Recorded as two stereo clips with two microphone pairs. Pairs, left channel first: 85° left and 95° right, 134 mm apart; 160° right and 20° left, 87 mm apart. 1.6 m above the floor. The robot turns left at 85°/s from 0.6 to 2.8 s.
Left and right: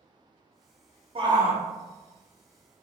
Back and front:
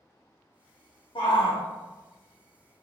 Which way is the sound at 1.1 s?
140° right.